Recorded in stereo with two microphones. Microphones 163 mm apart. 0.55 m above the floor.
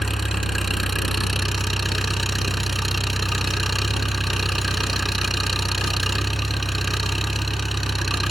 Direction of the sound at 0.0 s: Centre (ahead or behind).